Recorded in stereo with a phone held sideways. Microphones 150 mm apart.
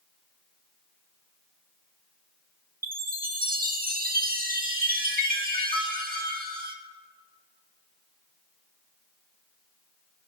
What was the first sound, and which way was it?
A chime, 75° right (ahead or behind).